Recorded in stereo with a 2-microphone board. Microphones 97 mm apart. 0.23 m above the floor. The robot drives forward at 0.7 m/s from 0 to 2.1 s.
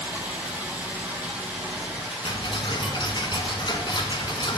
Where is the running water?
20° right (ahead or behind), 4.5 m; by 4.6 s 15° right (ahead or behind), 6 m.